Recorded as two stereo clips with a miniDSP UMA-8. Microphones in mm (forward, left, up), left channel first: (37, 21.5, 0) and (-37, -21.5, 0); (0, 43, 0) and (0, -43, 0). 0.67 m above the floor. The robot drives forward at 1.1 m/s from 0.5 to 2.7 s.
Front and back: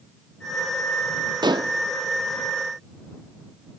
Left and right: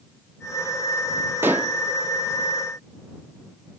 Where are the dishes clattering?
150° right, 0.6 m; by 1.8 s 160° right, 0.9 m.